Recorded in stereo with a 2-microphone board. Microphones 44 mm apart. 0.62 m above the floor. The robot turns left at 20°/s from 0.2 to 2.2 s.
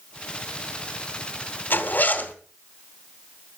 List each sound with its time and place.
1.7 s a zipper: 55° left (ahead or behind), 2.5 m; by 2.3 s 45° left (ahead or behind), 2.5 m